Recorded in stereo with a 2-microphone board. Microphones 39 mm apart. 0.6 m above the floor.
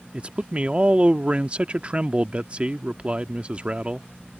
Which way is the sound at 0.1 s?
35° right (ahead or behind).